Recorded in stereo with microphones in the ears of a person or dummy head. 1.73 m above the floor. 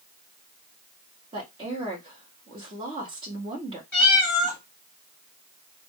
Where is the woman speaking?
30° right (ahead or behind), 0.6 m.